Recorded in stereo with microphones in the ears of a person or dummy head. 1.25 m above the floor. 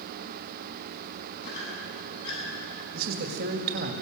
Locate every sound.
1.4 s a squeak: 65° left (ahead or behind), 8.5 m
2.9 s a man speaking: 55° right (ahead or behind), 1.9 m